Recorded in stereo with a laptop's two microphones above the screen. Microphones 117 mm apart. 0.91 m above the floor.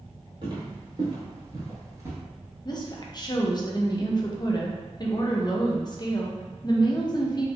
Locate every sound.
0.4 s footsteps: 45° right (ahead or behind), 1.5 m; by 2.2 s 20° right (ahead or behind), 0.9 m
2.6 s a woman speaking: 40° left (ahead or behind), 0.5 m